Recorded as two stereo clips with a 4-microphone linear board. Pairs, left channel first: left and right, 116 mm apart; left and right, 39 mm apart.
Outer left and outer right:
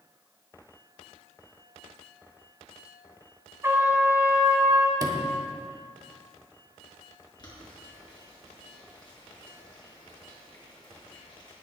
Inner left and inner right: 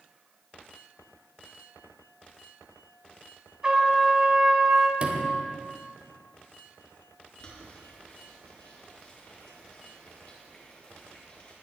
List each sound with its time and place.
3.6 s a trumpet: 25° right (ahead or behind), 2.5 m
5.0 s a sliding door: 35° right (ahead or behind), 1.5 m
7.4 s boiling: 40° left (ahead or behind), 5.5 m